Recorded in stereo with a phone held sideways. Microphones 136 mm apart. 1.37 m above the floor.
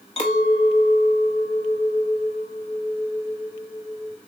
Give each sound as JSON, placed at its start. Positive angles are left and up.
{"t": 0.2, "sound": "a clink", "side_deg": 40, "distance_m": 0.9}